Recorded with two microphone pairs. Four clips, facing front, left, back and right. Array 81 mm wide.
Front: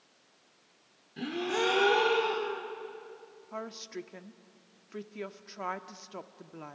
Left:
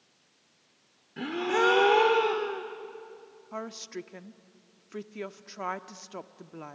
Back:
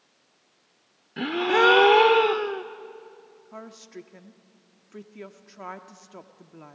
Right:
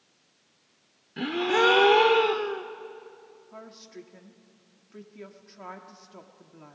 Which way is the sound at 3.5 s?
65° left.